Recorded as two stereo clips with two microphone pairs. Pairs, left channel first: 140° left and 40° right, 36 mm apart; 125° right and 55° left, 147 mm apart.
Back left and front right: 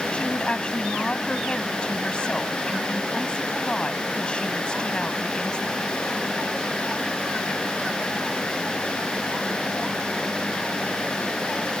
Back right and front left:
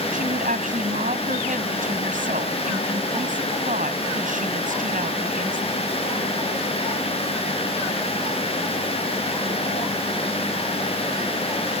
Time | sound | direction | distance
0.1 | a woman speaking | 75° left | ?